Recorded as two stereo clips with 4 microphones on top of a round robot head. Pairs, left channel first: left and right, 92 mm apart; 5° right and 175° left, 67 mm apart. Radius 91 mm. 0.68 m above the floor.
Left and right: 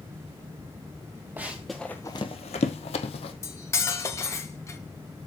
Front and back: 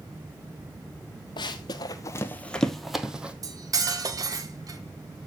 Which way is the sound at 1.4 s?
15° right.